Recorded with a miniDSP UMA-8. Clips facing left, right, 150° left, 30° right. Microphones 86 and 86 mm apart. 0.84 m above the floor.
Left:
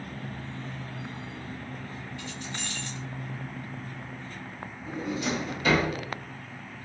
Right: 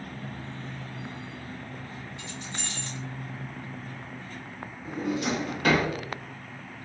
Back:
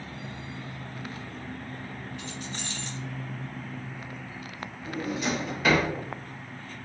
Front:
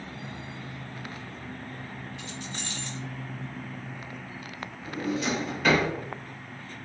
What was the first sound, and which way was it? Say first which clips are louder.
Keys jangling: left 1 dB, back 1 dB; 155° right.